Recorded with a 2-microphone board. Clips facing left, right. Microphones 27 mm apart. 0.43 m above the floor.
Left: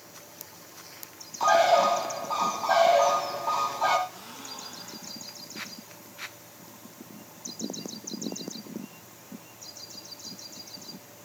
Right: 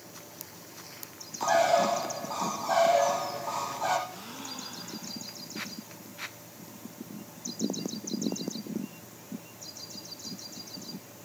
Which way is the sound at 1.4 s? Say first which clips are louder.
Left 4 dB; 30° left (ahead or behind).